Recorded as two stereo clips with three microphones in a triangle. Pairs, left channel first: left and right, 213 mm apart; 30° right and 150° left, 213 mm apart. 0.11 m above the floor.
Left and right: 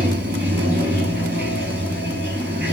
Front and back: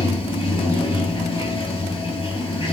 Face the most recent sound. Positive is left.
turn(degrees=-90)